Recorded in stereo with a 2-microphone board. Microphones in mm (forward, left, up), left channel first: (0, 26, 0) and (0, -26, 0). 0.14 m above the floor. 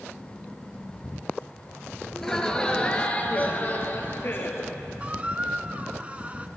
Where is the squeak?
25° right (ahead or behind), 0.6 m.